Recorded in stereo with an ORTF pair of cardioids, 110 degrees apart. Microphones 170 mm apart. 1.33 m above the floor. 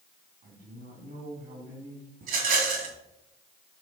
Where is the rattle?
70° right, 3 m.